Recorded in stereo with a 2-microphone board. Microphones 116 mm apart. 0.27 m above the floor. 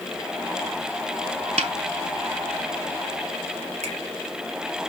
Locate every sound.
1.6 s a snare drum: 75° right (ahead or behind), 0.7 m
3.8 s a finger snap: 70° right (ahead or behind), 4.5 m